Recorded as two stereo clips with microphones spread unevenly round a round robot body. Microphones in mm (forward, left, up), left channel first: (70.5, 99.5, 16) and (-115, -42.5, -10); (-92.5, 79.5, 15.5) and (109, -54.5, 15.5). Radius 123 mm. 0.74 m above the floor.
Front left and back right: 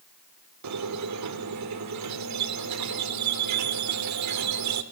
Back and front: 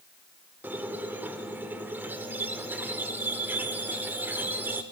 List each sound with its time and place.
0.6 s a squeak: 115° right, 1.1 m